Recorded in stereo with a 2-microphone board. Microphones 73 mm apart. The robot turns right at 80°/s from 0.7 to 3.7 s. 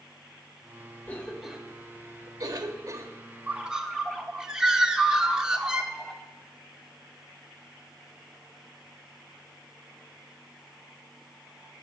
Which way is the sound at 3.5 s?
15° right (ahead or behind).